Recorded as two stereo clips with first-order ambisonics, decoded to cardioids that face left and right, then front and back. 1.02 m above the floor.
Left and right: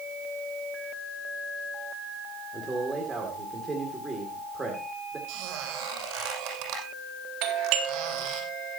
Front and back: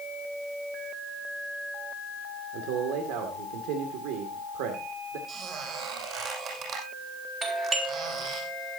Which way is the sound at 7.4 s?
115° right.